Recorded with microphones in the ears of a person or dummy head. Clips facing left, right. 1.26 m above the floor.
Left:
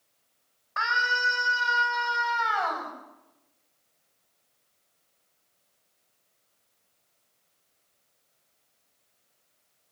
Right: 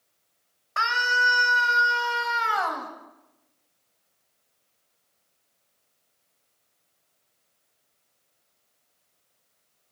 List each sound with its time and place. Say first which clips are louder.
0.8 s a scream: right 3 dB; 35° right (ahead or behind), 8 m; by 2.9 s 30° right (ahead or behind), 9 m